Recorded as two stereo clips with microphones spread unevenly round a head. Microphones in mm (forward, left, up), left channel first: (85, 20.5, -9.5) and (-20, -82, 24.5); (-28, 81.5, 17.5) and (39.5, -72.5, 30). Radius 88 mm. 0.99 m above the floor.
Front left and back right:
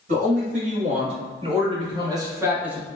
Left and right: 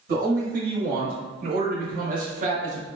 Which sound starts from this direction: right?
A man speaking, at 0.1 s.